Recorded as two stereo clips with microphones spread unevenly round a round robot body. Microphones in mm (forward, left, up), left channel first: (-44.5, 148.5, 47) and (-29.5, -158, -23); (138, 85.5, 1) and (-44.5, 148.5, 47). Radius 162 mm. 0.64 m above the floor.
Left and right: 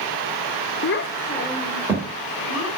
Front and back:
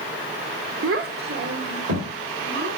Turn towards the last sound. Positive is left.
turn(degrees=-175)